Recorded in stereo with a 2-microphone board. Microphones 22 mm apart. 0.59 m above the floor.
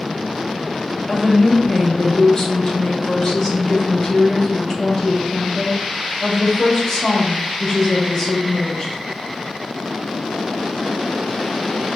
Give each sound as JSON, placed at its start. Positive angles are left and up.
{"t": 1.1, "sound": "a woman speaking", "side_deg": 25, "distance_m": 1.0}